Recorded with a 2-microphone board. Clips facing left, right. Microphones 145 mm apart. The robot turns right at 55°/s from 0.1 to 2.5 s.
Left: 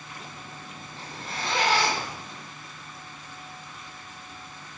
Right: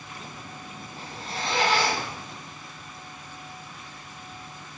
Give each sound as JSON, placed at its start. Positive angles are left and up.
{"t": 1.0, "sound": "a zipper", "azimuth_deg": -170, "distance_m": 3.0}